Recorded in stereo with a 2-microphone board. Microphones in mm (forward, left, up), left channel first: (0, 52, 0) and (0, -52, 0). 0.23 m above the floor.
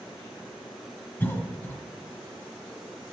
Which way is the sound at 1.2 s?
20° left (ahead or behind).